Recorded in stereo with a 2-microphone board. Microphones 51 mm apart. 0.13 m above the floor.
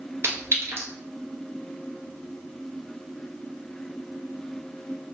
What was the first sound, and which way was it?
A clink, 55° right (ahead or behind).